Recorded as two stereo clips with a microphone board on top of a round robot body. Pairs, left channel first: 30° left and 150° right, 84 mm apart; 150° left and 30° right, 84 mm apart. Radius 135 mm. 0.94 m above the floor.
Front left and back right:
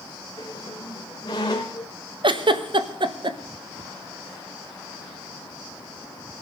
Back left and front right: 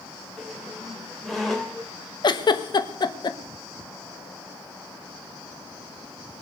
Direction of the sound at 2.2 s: 175° right.